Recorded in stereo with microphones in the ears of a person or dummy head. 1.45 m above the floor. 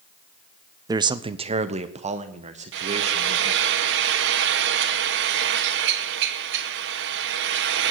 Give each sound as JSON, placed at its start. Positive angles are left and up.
{"t": 0.9, "sound": "a man speaking", "side_deg": -20, "distance_m": 0.5}
{"t": 2.7, "sound": "frying", "side_deg": -65, "distance_m": 1.4}